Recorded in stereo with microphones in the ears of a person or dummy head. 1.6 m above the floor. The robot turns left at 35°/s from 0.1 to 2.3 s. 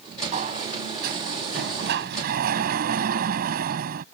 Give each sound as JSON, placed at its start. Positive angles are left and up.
{"t": 0.3, "sound": "a sliding door", "azimuth_deg": -50}